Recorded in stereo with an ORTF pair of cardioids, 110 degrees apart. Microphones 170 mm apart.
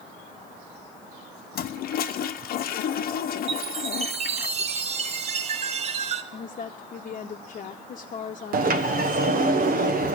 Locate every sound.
1.6 s a toilet flushing: 65° left, 0.8 m
3.5 s a chime: 40° right, 1.2 m
6.3 s a woman speaking: 45° left, 1.0 m
8.5 s a sliding door: 55° right, 1.1 m